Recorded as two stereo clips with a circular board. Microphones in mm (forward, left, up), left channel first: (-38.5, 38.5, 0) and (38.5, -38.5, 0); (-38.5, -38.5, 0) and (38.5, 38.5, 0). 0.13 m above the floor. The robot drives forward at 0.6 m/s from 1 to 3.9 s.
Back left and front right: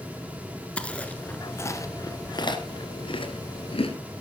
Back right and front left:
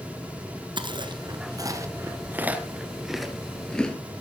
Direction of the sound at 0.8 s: 60° left.